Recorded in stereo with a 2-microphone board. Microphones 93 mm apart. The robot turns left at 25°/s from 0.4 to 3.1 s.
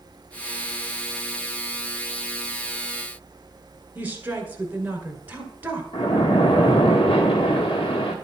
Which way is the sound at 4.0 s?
20° right (ahead or behind).